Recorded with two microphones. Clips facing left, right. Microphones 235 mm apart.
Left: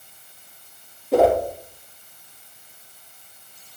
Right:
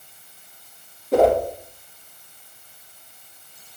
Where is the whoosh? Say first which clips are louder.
Even; 5° left (ahead or behind), 2.5 m.